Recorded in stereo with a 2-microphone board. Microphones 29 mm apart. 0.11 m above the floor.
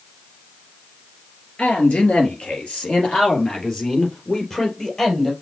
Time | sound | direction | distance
1.6 | a man speaking | 40° left (ahead or behind) | 2.5 m